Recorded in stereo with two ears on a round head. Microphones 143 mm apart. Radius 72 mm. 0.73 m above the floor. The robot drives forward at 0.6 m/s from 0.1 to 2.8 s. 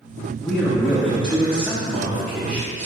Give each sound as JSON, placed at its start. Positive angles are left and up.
{"t": 0.4, "sound": "a man speaking", "side_deg": 5, "distance_m": 1.0}